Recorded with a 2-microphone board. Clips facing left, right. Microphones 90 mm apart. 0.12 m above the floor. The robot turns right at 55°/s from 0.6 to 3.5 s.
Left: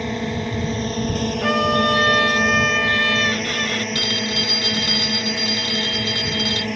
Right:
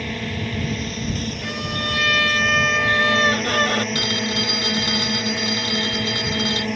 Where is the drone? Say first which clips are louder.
Left 3 dB; 20° left (ahead or behind); by 6.8 s 10° right (ahead or behind).